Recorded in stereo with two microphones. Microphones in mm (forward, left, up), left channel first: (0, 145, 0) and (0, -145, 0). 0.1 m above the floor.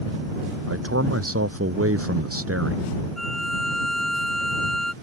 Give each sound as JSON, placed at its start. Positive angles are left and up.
{"t": 0.7, "sound": "a man speaking", "side_deg": -50}
{"t": 3.2, "sound": "a violin", "side_deg": 60}